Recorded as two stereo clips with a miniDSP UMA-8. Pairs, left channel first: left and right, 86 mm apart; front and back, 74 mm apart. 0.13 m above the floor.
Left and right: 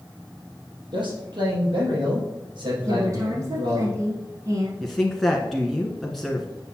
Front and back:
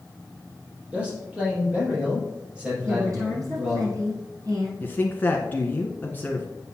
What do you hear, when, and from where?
0.9 s a man speaking: 105° right, 5 m
2.9 s a woman speaking: 140° right, 4.5 m
4.8 s a woman speaking: 5° left, 1.2 m